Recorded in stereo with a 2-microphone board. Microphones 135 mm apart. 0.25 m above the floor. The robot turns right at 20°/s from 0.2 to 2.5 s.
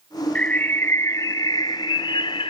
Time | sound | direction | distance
0.3 | a bird | 10° left | ?